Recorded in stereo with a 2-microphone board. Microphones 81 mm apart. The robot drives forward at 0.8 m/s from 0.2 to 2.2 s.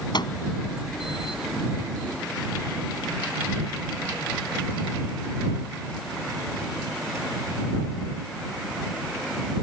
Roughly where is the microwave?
Left.